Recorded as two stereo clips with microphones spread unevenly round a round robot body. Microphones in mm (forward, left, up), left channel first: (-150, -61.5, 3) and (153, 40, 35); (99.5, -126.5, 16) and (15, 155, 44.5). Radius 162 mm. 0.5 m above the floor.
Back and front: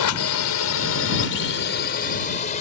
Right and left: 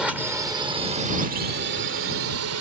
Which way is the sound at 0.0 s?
160° right.